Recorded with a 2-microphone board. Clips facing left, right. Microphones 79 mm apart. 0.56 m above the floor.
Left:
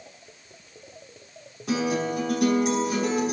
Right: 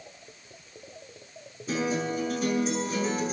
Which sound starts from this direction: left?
A guitar, at 1.7 s.